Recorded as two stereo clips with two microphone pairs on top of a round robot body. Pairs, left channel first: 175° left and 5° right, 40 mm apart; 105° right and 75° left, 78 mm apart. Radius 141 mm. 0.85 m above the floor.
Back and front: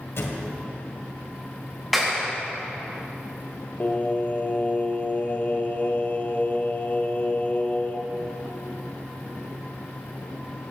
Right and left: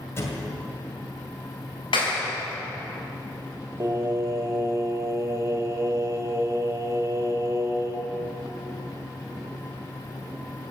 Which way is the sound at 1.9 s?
95° right.